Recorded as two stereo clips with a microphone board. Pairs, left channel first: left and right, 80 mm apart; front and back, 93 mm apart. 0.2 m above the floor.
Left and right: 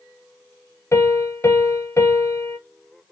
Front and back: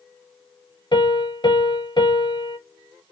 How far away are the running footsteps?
I don't hear running footsteps.